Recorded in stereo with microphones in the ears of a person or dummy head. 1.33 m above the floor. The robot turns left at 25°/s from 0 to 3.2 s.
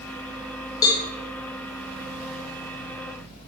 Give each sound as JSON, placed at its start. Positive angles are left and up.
{"t": 0.8, "sound": "a cowbell", "side_deg": 20, "distance_m": 1.5}